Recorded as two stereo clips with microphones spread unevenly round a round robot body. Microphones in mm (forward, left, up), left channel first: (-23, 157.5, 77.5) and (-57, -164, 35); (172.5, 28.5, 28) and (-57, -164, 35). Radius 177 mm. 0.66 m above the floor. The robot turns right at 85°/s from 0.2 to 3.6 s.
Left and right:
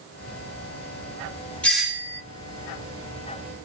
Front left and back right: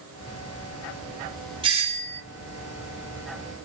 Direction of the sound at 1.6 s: 175° right.